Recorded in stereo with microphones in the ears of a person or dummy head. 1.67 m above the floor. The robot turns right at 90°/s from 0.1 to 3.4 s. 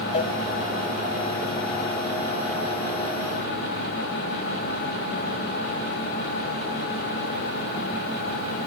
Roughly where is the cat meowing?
I don't hear a cat meowing.